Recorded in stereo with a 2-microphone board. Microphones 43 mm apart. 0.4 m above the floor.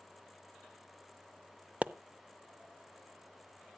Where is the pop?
35° right (ahead or behind), 0.5 m.